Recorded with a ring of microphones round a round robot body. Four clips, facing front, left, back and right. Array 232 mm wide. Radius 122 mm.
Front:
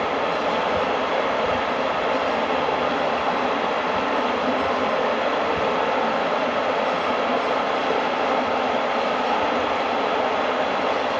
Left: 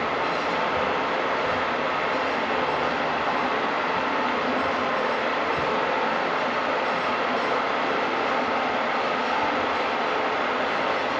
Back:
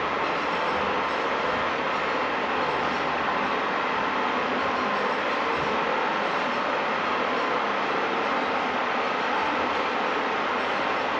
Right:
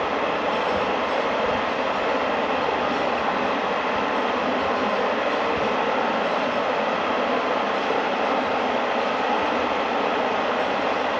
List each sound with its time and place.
0.0 s running water: 40° right, 1.4 m